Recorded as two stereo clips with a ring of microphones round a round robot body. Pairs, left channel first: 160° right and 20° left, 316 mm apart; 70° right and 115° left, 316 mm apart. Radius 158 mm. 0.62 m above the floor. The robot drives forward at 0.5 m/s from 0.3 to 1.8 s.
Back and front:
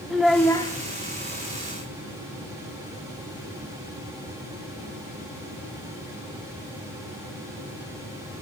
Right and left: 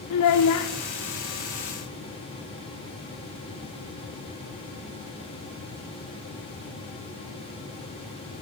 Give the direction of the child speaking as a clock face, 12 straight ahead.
2 o'clock.